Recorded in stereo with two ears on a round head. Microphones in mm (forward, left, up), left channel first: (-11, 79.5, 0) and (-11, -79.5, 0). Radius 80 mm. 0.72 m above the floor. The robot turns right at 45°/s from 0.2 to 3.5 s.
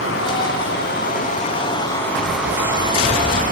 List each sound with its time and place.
0.0 s running water: 85° left, 5 m; by 3.5 s 125° right, 5 m